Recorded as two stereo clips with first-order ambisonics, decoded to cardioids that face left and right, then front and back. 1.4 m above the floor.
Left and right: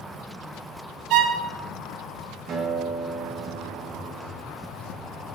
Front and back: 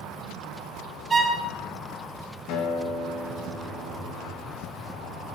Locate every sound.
1.1 s a violin: 110° right, 1.0 m
2.5 s a guitar: 35° right, 1.9 m